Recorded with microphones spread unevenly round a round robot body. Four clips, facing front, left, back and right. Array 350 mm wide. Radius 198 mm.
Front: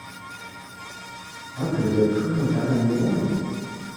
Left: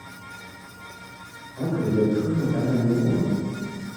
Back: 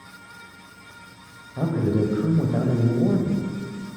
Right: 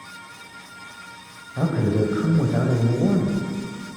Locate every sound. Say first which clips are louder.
1.6 s a man speaking: right 1 dB, front 2 dB; 110° right, 1.9 m